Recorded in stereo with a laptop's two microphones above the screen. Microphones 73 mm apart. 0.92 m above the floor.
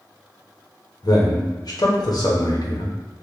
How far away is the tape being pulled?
No tape being pulled in this recording.